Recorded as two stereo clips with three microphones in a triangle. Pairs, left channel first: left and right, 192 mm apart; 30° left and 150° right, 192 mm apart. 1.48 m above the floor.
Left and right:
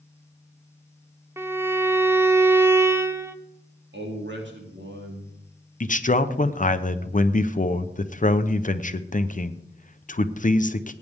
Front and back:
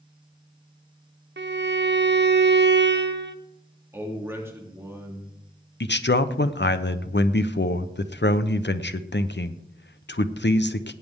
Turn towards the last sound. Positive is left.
turn(degrees=45)